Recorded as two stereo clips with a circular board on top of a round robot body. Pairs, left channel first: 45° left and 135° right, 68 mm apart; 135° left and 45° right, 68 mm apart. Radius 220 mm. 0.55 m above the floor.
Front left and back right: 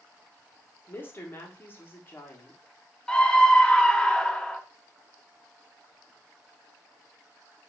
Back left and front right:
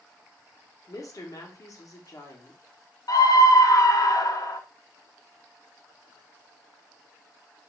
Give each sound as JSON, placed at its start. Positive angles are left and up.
{"t": 0.9, "sound": "a woman speaking", "azimuth_deg": 100, "distance_m": 1.5}
{"t": 3.1, "sound": "a scream", "azimuth_deg": 120, "distance_m": 1.0}